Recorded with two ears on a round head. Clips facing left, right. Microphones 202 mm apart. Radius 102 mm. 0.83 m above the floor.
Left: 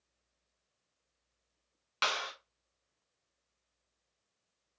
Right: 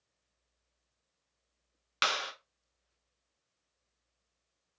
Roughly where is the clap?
Centre.